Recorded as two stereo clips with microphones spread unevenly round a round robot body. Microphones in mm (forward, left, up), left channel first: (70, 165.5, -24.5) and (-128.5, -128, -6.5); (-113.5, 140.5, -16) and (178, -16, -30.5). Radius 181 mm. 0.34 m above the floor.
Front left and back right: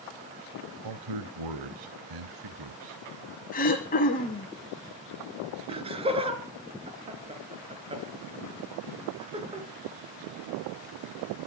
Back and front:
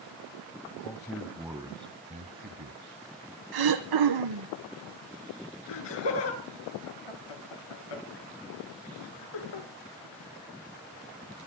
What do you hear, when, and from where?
0.8 s a man speaking: 130° right, 1.3 m; by 3.0 s 85° right, 2 m
3.5 s throat clearing: 15° right, 2.5 m
5.7 s laughter: 160° left, 4.5 m